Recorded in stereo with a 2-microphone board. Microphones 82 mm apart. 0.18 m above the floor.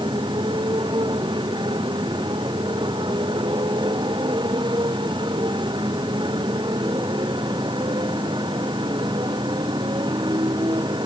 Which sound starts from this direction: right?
A motorcycle, at 0.0 s.